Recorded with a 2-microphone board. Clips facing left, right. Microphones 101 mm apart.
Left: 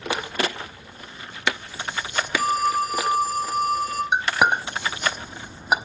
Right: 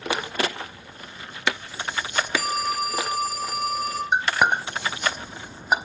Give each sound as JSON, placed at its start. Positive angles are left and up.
{"t": 2.4, "sound": "a phone ringing", "side_deg": -75, "distance_m": 3.0}
{"t": 4.1, "sound": "a clink", "side_deg": 5, "distance_m": 0.7}